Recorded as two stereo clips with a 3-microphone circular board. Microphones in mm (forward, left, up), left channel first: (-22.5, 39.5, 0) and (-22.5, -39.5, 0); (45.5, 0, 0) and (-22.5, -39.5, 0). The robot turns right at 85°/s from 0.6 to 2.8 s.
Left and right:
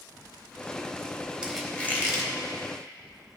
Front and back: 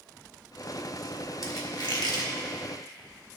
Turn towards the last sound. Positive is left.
turn(degrees=105)